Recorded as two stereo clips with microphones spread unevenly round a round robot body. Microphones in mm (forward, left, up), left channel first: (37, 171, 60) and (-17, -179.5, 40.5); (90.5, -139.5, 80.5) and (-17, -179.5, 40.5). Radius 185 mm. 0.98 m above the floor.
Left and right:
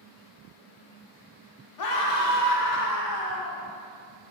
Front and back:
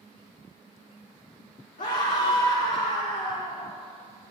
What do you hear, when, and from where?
1.8 s a scream: 45° left, 2.5 m; by 3.6 s 55° left, 3.5 m